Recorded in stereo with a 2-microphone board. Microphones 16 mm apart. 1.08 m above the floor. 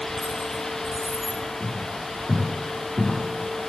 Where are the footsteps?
15° right (ahead or behind), 6 m; by 3.2 s 10° right (ahead or behind), 7 m.